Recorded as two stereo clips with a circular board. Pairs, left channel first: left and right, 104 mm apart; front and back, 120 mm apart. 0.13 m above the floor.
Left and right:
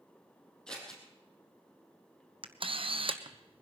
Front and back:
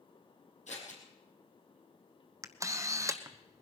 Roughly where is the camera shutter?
Behind right.